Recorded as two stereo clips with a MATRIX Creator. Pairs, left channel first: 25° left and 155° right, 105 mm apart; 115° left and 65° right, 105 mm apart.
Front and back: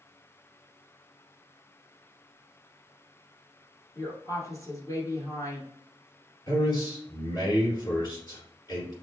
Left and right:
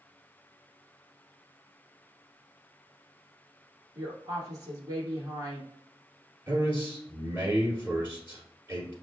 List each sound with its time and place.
4.0 s a woman speaking: 25° right, 1.6 m
6.5 s a man speaking: 5° right, 2.0 m